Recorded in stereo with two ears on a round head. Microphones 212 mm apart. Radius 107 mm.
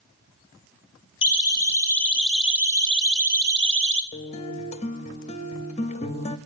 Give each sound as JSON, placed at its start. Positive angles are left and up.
{"t": 1.2, "sound": "a siren", "side_deg": 20, "distance_m": 3.0}
{"t": 4.1, "sound": "a guitar", "side_deg": 30, "distance_m": 0.8}